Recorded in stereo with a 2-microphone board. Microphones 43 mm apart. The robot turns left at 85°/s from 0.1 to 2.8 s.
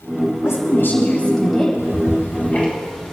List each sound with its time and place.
0.4 s a woman speaking: 95° left, 7.5 m; by 1.7 s 15° right, 7.5 m
1.8 s ticking: 80° left, 4.5 m; by 3.1 s 15° left (ahead or behind), 4.5 m